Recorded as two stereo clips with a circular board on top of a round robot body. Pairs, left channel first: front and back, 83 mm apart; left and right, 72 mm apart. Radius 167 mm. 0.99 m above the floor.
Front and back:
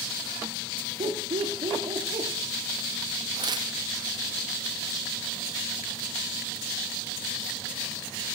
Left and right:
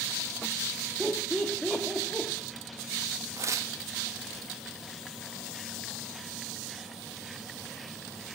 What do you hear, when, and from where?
1.0 s laughter: 175° right, 2 m; by 2.3 s 160° left, 2.5 m
3.4 s tearing paper: 140° right, 0.8 m